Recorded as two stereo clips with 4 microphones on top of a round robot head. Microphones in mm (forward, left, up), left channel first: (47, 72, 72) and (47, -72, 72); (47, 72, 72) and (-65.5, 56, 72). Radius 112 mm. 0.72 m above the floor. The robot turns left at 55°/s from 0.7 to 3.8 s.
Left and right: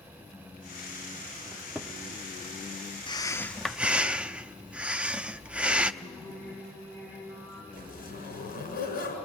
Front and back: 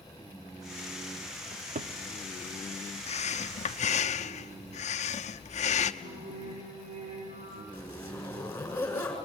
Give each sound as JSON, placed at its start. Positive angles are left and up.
{"t": 1.5, "sound": "a cupboard door", "azimuth_deg": -165, "distance_m": 0.7}
{"t": 3.1, "sound": "breathing", "azimuth_deg": 30, "distance_m": 0.8}
{"t": 6.0, "sound": "singing", "azimuth_deg": 165, "distance_m": 9.0}
{"t": 7.7, "sound": "a zipper", "azimuth_deg": 80, "distance_m": 6.0}